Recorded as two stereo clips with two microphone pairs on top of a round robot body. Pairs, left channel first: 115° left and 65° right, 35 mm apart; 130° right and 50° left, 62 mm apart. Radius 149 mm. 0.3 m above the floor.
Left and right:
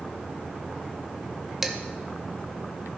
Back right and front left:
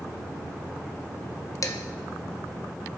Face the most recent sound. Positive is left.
turn(degrees=-145)